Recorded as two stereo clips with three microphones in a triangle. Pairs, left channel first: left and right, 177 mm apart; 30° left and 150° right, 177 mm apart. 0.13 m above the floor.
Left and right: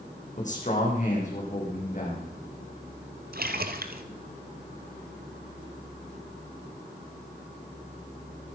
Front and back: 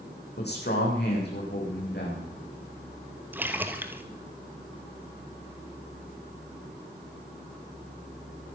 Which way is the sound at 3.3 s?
70° right.